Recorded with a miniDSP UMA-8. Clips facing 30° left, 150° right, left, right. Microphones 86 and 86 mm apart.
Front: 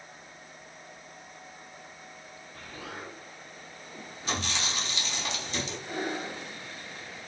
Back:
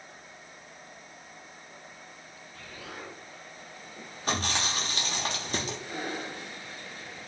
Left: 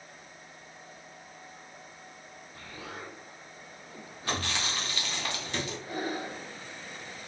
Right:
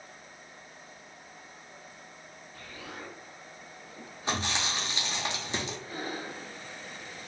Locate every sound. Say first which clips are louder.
2.5 s an explosion: front 2 dB, left 1 dB; 45° left, 1.4 m
4.3 s chewing: back 3 dB, right 1 dB; 150° right, 0.8 m
5.9 s breathing: front 2 dB, left 3 dB; 80° left, 1.3 m